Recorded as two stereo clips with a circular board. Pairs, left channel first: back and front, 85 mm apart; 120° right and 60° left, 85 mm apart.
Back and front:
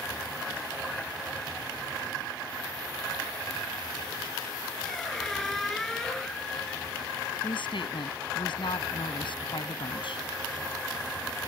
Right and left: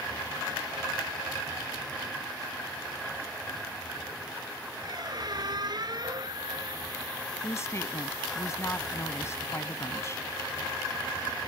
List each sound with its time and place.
4.8 s a squeak: 95° left
7.4 s a woman speaking: 175° right